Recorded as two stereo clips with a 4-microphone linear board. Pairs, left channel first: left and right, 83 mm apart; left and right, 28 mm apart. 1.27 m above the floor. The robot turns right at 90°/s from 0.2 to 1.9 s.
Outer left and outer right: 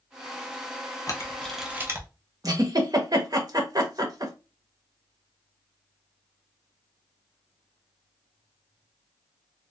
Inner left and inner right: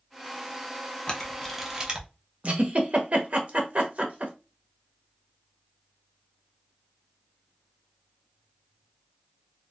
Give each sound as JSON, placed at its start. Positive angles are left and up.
{"t": 1.1, "sound": "a camera shutter", "side_deg": 40, "distance_m": 0.6}
{"t": 2.4, "sound": "a giggle", "side_deg": -45, "distance_m": 0.7}